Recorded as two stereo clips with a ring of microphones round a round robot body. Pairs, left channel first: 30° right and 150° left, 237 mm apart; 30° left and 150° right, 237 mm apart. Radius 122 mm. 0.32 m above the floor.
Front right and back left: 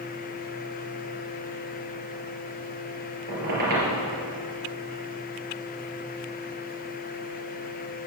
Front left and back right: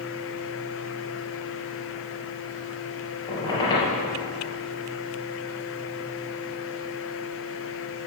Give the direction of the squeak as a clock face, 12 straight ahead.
9 o'clock.